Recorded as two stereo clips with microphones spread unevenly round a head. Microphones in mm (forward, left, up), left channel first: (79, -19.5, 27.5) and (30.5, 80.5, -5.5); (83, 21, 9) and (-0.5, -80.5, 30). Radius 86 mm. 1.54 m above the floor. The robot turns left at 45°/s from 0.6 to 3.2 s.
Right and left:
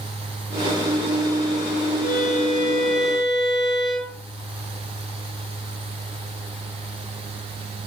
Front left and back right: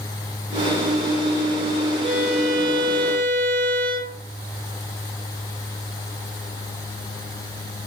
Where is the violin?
75° right, 7 m; by 4.2 s 130° right, 7 m.